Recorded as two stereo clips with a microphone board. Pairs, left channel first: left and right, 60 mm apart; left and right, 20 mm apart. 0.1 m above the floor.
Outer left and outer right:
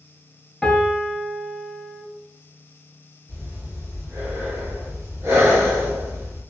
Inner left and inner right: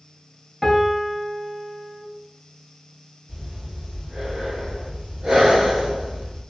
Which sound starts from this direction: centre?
A piano, at 0.6 s.